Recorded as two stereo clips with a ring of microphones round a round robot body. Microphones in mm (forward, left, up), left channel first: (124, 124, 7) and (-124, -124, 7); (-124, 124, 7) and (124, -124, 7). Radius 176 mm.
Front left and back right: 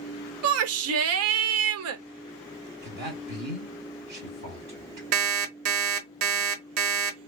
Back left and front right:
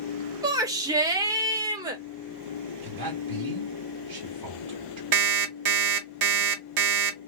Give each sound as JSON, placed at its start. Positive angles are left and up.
{"t": 0.4, "sound": "a shout", "azimuth_deg": -120, "distance_m": 0.7}
{"t": 2.8, "sound": "a man speaking", "azimuth_deg": -65, "distance_m": 1.4}
{"t": 5.1, "sound": "an alarm clock", "azimuth_deg": -80, "distance_m": 0.8}